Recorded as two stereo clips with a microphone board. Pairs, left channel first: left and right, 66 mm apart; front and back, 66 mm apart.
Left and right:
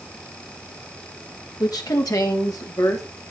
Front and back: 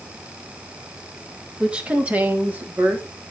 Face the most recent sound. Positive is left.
turn(degrees=120)